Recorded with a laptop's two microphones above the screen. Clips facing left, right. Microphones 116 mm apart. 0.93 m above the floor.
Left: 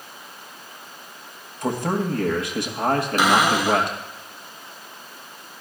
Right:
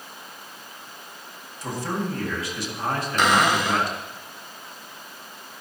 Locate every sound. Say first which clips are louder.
1.6 s a man speaking: left 5 dB; 60° left (ahead or behind), 1.2 m
3.2 s a cupboard door: right 1 dB; 10° left (ahead or behind), 1.4 m